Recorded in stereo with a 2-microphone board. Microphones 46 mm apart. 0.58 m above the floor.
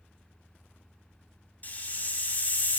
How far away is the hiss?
About 1.9 m.